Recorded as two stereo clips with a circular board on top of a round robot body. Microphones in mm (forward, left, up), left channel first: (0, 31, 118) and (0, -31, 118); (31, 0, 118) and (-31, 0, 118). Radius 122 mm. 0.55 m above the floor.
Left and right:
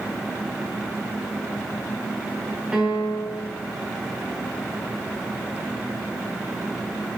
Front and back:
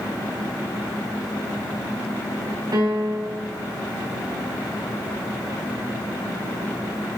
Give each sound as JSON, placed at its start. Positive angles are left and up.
{"t": 2.7, "sound": "a piano", "azimuth_deg": -165, "distance_m": 3.0}